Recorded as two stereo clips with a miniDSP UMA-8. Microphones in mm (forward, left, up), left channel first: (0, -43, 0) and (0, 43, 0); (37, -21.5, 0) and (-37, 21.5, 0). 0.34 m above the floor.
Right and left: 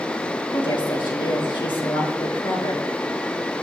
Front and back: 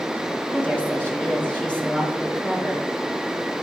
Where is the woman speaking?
105° right, 5 m.